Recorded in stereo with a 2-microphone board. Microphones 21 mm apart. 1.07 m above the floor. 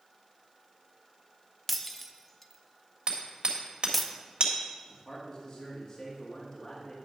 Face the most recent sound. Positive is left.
turn(degrees=25)  # may be behind; listen again after turning